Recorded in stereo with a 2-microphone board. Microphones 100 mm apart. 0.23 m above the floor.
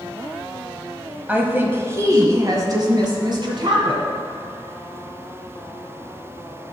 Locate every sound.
1.3 s a woman speaking: 15° right (ahead or behind), 1.2 m; by 4.0 s 55° right (ahead or behind), 2 m